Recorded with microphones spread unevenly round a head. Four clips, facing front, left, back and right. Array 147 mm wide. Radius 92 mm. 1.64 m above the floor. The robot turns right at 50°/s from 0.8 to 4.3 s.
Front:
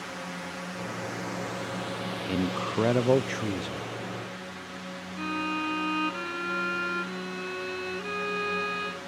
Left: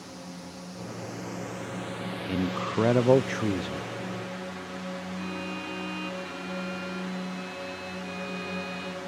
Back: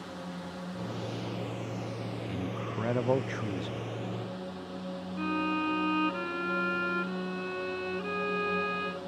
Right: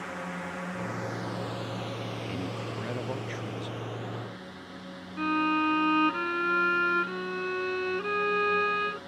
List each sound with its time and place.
0.0 s a drone: 50° right; by 9.1 s 125° left
2.3 s a man speaking: 10° left; by 3.9 s 85° left
5.2 s a violin: 75° right